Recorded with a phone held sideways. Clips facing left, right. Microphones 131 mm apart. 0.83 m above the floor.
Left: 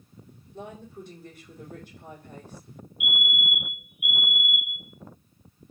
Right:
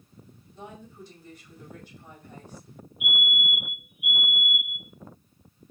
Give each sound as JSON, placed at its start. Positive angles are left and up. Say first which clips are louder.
{"t": 0.5, "sound": "a woman speaking", "louder": "left 4 dB", "side_deg": 55, "distance_m": 2.0}
{"t": 3.0, "sound": "a fire alarm", "louder": "even", "side_deg": -35, "distance_m": 1.4}